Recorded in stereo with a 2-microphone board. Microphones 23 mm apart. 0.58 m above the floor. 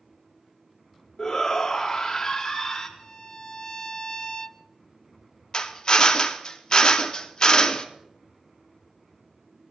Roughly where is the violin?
Left.